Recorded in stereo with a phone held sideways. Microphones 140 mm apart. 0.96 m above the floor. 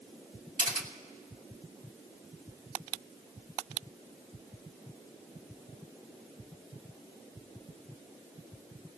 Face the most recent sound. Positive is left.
turn(degrees=-65)  # may be behind; listen again after turning